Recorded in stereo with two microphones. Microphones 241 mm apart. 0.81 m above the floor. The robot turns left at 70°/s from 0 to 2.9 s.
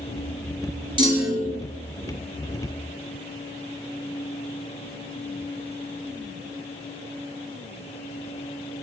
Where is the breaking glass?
No breaking glass in this recording.